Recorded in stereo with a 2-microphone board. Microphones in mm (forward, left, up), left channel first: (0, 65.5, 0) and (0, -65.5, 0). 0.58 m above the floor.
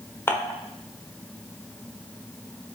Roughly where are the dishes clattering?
Centre.